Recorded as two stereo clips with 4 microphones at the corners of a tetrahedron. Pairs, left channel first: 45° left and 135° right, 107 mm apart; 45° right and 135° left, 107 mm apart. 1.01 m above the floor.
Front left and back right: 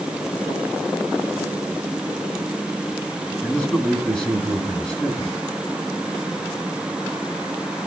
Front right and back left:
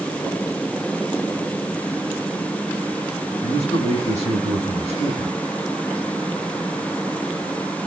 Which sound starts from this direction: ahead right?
A man speaking, at 3.4 s.